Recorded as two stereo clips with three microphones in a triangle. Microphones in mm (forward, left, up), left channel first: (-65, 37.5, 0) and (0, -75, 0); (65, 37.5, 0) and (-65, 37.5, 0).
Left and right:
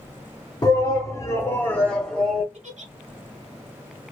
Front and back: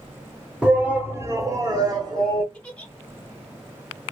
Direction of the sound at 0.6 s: 105° left.